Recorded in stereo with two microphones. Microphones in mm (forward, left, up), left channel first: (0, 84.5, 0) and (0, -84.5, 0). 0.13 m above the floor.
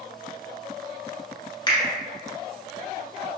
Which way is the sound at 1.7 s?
25° left (ahead or behind).